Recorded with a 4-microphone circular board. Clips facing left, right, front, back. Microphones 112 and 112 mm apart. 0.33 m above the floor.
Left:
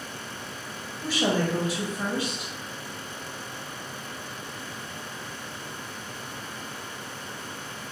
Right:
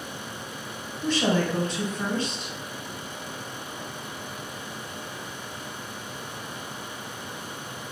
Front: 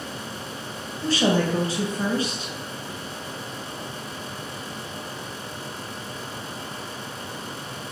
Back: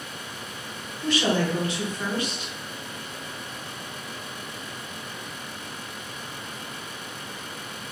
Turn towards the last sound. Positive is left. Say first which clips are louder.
# right 1 dB, front 2 dB
turn(degrees=15)